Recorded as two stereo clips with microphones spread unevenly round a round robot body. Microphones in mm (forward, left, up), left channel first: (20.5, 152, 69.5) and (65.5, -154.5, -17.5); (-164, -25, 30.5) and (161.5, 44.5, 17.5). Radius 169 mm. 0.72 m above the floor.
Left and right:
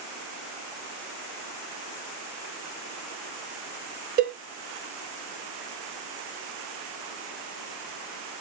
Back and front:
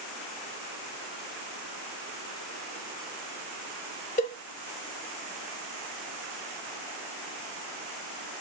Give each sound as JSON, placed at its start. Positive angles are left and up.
{"t": 4.2, "sound": "a cowbell", "azimuth_deg": -105, "distance_m": 0.7}